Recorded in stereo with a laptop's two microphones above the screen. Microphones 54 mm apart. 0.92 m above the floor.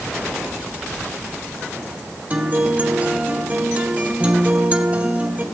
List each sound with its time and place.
2.3 s a guitar: 30° right (ahead or behind), 1.8 m